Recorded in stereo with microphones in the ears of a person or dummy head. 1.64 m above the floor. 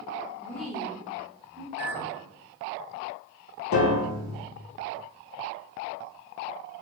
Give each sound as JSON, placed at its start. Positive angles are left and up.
{"t": 0.4, "sound": "a woman speaking", "side_deg": 20, "distance_m": 0.8}
{"t": 1.8, "sound": "a clink", "side_deg": -10, "distance_m": 1.4}
{"t": 3.7, "sound": "a piano", "side_deg": 75, "distance_m": 0.6}